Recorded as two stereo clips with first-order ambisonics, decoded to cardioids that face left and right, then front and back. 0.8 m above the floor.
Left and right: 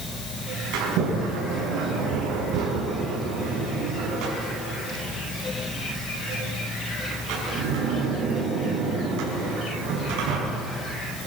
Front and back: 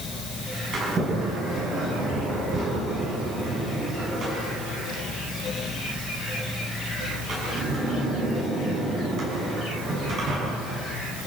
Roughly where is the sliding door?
Behind right.